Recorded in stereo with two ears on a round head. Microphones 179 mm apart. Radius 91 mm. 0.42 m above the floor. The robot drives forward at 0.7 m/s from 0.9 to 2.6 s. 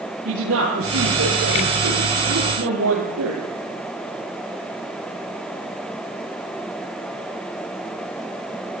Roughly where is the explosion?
I don't hear an explosion.